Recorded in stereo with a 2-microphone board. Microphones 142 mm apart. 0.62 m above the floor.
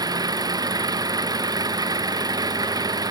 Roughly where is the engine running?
Right.